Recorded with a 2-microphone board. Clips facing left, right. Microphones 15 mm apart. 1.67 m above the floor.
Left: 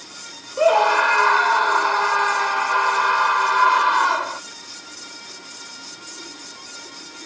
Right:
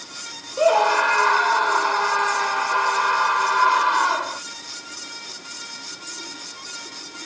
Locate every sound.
0.6 s a scream: 10° left (ahead or behind)